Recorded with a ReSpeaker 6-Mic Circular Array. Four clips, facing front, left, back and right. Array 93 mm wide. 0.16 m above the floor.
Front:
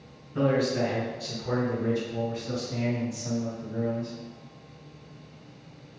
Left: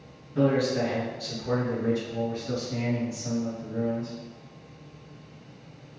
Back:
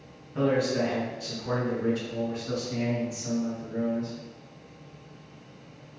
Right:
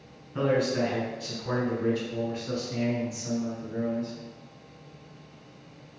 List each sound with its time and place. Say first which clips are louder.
0.3 s a man speaking: left 2 dB, even; 80° right, 1.8 m; by 4.1 s 145° right, 2.5 m